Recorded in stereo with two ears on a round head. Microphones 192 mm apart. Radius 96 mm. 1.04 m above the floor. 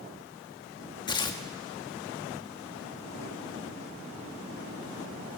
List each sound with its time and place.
1.1 s tearing paper: 20° left (ahead or behind), 1.2 m